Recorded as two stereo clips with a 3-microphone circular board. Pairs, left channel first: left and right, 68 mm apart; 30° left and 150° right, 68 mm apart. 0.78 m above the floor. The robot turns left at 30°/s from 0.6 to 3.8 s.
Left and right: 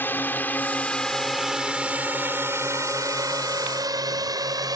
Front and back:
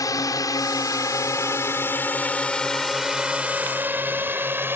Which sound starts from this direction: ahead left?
A drone, at 0.0 s.